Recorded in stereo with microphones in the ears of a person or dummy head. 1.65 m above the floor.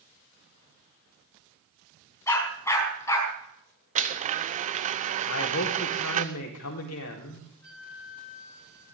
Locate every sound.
2.3 s a dog barking: 20° left (ahead or behind), 4.5 m
4.0 s a blender: 40° right (ahead or behind), 0.7 m
5.2 s a man speaking: 80° left, 4 m
7.6 s a flute: 5° right (ahead or behind), 7 m